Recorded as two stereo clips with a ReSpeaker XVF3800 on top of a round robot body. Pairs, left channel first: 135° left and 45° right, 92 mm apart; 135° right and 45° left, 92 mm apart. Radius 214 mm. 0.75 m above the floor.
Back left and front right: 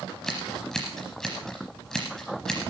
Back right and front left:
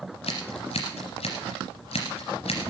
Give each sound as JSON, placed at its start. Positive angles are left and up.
{"t": 0.2, "sound": "scissors", "azimuth_deg": -140, "distance_m": 0.8}